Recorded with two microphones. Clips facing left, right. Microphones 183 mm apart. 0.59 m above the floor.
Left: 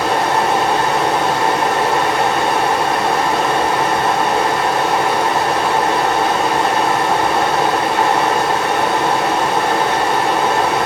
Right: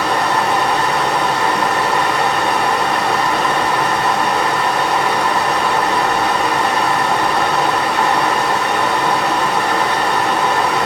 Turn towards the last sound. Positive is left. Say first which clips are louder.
# left 1 dB
turn(degrees=25)  # may be behind; listen again after turning